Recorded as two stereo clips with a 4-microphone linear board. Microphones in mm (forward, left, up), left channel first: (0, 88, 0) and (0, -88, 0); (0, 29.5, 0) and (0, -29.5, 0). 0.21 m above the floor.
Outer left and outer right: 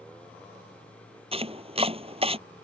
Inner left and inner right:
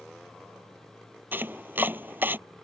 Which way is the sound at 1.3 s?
35° right (ahead or behind).